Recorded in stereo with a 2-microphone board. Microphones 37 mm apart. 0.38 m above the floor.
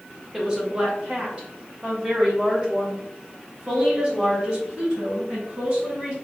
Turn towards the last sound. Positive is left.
turn(degrees=-35)  # may be behind; listen again after turning